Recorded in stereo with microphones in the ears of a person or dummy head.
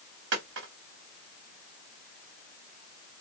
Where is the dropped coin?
65° right (ahead or behind), 3 m.